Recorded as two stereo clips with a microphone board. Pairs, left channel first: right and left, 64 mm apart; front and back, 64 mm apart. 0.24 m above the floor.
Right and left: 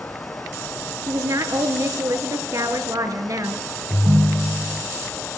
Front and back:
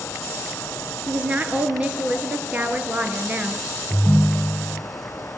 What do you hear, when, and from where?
1.1 s a woman speaking: 115° left, 3.5 m
3.9 s a ringtone: 100° left, 1.0 m